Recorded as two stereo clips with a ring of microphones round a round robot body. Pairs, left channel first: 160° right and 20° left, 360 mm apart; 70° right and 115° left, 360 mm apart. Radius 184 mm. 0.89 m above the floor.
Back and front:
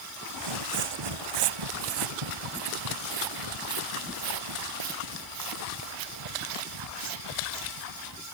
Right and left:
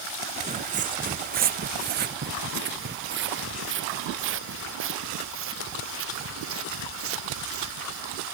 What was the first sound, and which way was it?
Footsteps, 40° left.